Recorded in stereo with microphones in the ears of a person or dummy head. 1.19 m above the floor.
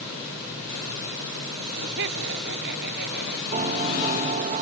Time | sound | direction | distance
1.6 | laughter | 55° right (ahead or behind) | ?
3.5 | a piano | 30° right (ahead or behind) | ?